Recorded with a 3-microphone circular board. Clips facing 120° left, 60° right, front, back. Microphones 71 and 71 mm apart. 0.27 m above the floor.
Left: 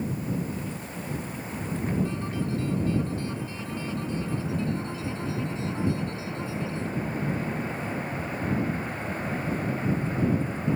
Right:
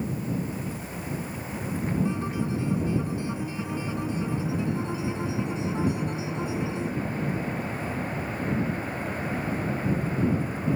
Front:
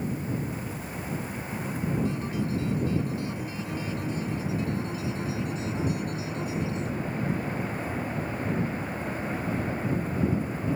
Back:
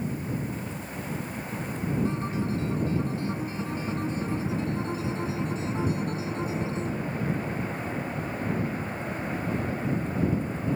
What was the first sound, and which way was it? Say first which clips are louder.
A guitar: right 2 dB, back 1 dB; 130° right.